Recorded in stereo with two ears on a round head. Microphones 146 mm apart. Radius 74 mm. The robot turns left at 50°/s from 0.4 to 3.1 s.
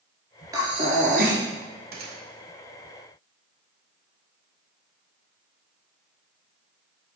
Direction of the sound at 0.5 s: 20° right.